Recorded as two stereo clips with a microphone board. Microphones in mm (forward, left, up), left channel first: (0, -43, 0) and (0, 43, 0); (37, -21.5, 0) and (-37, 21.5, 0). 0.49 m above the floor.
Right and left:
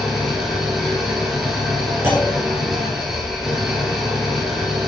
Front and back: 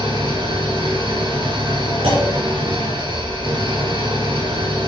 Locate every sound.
0.0 s an engine running: 175° left, 3.5 m
2.0 s a clunk: 155° left, 5.5 m